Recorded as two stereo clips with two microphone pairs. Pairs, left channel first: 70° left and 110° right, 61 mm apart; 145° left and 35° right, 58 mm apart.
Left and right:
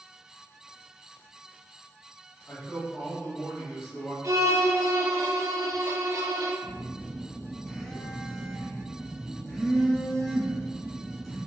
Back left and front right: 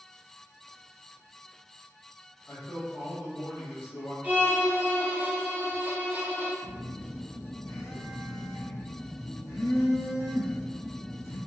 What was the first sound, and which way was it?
A man speaking, 115° left.